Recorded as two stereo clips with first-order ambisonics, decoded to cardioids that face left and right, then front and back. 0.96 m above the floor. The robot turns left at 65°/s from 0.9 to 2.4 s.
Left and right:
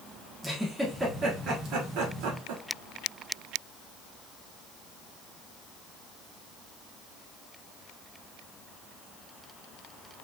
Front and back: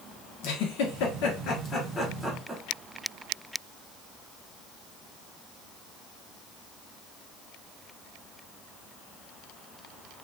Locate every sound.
0.4 s a giggle: 5° right, 1.3 m; by 2.6 s 100° right, 1.3 m